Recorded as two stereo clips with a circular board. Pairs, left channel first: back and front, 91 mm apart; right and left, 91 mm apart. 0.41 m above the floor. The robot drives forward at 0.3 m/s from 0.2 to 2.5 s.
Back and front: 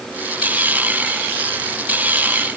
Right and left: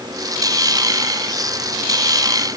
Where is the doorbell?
I don't hear a doorbell.